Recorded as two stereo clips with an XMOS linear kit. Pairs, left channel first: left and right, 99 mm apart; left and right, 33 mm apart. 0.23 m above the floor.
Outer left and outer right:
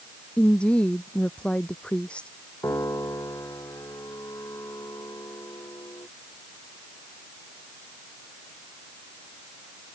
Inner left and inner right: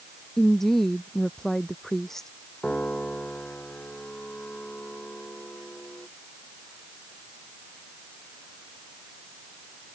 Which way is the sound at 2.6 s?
35° left (ahead or behind).